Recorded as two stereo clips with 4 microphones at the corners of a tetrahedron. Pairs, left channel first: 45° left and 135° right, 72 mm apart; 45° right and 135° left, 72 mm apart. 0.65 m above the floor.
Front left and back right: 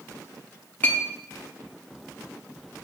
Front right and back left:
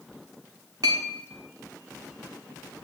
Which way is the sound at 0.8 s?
110° left.